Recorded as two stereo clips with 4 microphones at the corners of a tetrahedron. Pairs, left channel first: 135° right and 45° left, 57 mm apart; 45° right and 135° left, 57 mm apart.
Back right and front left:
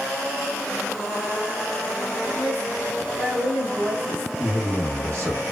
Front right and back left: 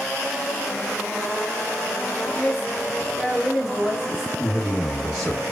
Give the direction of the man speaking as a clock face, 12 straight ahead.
9 o'clock.